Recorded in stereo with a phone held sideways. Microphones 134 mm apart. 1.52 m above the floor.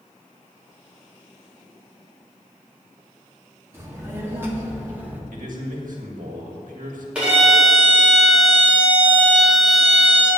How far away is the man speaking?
About 2 m.